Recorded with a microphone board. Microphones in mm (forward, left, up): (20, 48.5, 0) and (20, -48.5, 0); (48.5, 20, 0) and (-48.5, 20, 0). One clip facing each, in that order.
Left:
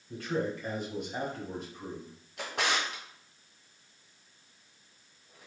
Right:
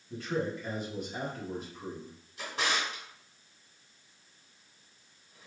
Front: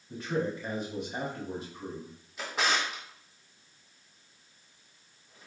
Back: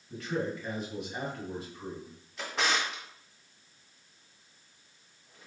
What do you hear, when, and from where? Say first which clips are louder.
0.1 s a man speaking: left 1 dB, front 2 dB; 60° left, 1.6 m
2.4 s a drawer: left 1 dB, front 1 dB; 85° left, 1.4 m